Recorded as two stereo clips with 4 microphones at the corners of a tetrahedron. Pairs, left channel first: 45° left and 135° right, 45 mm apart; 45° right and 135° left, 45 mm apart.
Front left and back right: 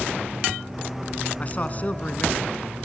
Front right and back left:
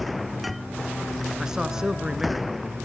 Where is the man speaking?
65° left, 1.3 m.